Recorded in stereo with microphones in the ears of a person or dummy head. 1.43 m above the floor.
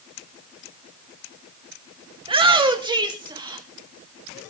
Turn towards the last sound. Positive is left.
turn(degrees=-15)  # may be behind; listen again after turning